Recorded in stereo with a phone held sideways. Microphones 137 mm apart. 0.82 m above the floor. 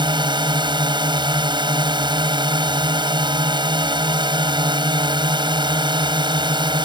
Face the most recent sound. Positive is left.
turn(degrees=-35)  # may be behind; listen again after turning